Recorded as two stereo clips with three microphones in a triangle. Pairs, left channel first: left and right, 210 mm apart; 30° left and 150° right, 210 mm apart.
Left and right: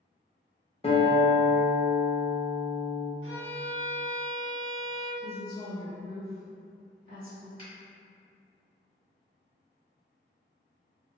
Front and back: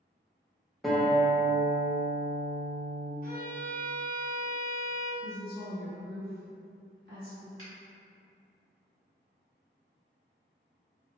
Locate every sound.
0.8 s a guitar: 120° left, 0.6 m
3.2 s a violin: 75° left, 0.6 m
5.2 s a woman speaking: 125° right, 1.5 m
7.6 s a finger snap: 135° right, 1.5 m